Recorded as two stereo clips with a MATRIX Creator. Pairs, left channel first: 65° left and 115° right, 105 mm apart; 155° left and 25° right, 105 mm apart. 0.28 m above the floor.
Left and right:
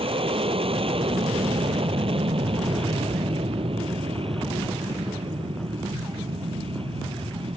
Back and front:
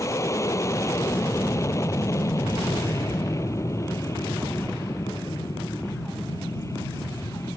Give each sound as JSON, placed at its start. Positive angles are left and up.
{"t": 0.0, "sound": "an aircraft", "azimuth_deg": -140}